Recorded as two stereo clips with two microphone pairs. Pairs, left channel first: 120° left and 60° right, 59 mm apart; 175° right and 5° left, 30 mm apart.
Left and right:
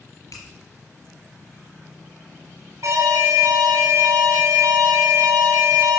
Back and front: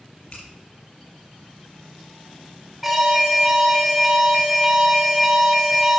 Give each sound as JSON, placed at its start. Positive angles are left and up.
{"t": 0.3, "sound": "a finger snap", "azimuth_deg": 140, "distance_m": 4.0}
{"t": 2.8, "sound": "an alarm", "azimuth_deg": -80, "distance_m": 3.5}